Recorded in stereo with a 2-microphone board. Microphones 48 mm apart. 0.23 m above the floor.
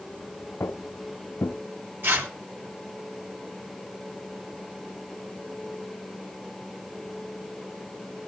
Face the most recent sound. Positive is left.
turn(degrees=-50)  # may be behind; listen again after turning